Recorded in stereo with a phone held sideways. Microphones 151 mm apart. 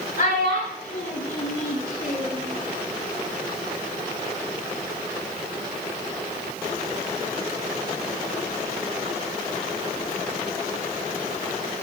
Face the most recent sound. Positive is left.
turn(degrees=75)  # may be behind; listen again after turning